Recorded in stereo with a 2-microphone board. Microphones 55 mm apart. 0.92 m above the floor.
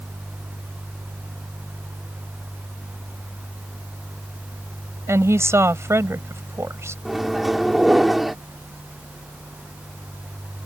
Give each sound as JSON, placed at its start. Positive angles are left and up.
{"t": 5.1, "sound": "a woman speaking", "side_deg": -50}
{"t": 7.0, "sound": "a microwave", "side_deg": -5}